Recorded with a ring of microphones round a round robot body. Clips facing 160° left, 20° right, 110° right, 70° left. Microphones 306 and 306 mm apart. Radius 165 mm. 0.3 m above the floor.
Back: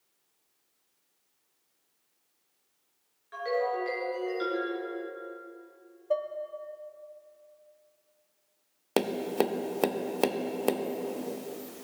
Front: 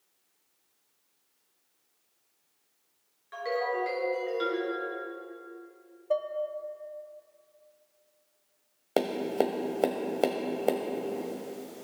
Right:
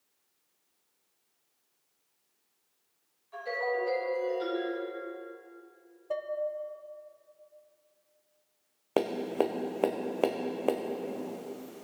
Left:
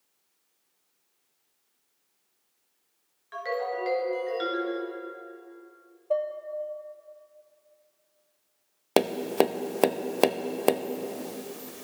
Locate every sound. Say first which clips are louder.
3.3 s a ringtone: back 1 dB, left 1 dB; 60° left, 3.5 m
6.1 s dishes clattering: even, left 7 dB; 110° right, 0.7 m
9.0 s tapping: even, left 5 dB; 90° left, 0.5 m